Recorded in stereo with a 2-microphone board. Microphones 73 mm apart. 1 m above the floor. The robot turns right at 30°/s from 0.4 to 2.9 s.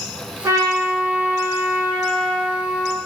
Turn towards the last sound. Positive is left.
turn(degrees=-20)